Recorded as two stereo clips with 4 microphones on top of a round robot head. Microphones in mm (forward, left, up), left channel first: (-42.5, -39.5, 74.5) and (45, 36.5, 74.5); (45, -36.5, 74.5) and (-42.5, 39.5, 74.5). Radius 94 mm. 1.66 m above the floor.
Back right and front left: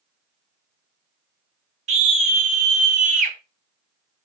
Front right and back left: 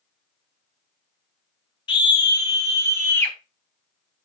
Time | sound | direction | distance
1.9 | a scream | 10° left | 2.5 m